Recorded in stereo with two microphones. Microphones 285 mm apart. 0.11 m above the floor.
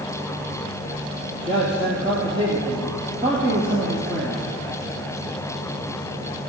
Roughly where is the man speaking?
Centre.